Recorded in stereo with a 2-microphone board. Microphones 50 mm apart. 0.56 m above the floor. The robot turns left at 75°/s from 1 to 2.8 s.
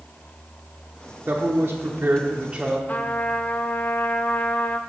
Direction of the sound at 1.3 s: 60° right.